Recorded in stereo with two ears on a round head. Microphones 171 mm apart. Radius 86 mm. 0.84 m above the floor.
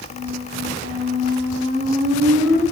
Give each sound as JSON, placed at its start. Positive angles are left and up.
{"t": 0.1, "sound": "a squeak", "side_deg": -60, "distance_m": 5.0}